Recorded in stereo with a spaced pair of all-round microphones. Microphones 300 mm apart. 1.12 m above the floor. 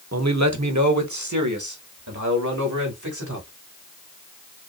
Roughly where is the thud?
I don't hear a thud.